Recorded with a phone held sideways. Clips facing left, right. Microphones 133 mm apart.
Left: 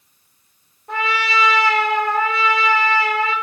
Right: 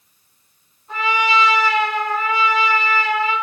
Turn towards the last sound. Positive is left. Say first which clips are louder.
# right 2 dB
turn(degrees=70)  # may be behind; listen again after turning